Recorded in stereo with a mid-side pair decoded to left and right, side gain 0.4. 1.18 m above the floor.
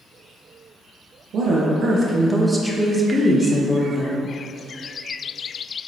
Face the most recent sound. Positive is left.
turn(degrees=35)